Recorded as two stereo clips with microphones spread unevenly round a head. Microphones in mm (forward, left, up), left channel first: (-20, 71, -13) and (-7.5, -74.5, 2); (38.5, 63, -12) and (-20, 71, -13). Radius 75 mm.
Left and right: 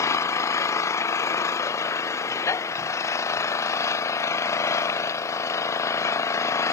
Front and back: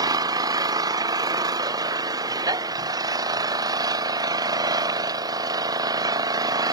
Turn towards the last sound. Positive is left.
turn(degrees=165)